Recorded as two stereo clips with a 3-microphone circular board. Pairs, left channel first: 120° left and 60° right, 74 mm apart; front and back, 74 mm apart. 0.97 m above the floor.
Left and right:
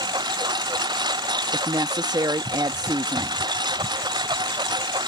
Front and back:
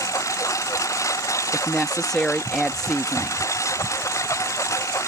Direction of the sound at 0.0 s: 45° right.